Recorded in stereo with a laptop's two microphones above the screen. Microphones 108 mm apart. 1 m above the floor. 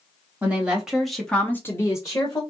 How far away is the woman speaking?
About 1.3 m.